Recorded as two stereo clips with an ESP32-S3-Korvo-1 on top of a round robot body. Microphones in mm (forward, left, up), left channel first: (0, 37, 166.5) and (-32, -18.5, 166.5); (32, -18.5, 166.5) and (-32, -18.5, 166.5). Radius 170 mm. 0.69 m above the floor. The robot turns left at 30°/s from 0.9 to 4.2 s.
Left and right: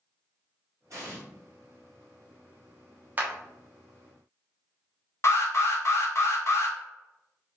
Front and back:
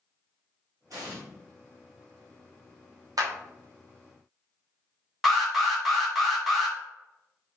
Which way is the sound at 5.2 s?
90° left.